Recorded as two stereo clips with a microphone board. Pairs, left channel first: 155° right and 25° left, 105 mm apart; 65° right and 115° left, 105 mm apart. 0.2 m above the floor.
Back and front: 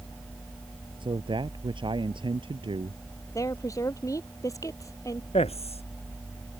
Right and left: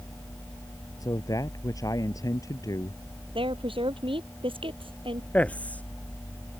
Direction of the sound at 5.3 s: 145° right.